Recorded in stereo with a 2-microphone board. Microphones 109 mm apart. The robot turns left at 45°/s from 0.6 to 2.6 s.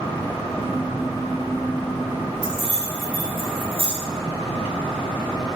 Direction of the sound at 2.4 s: 45° left (ahead or behind).